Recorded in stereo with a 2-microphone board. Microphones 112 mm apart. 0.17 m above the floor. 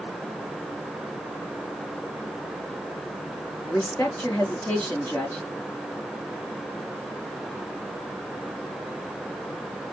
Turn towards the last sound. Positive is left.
turn(degrees=20)  # may be behind; listen again after turning